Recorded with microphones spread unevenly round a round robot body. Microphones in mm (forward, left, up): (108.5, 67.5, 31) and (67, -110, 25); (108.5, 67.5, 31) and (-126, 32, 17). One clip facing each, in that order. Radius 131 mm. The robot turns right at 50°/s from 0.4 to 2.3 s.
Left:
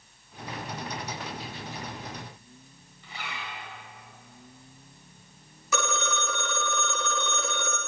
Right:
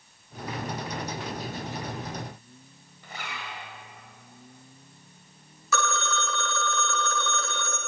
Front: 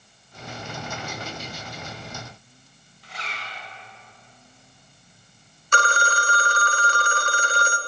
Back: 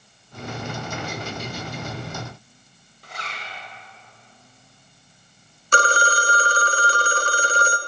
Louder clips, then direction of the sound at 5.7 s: Right 1 dB, back 4 dB; 150° left.